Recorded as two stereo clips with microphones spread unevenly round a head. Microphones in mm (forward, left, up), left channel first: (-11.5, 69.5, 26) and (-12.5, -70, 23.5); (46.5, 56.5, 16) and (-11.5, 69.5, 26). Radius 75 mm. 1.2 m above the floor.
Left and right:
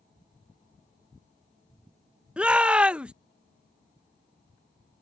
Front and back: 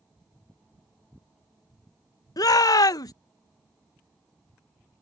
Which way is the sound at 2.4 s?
10° right.